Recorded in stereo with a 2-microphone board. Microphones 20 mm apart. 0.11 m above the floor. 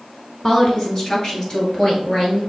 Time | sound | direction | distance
0.4 | a woman speaking | 30° left (ahead or behind) | 1.3 m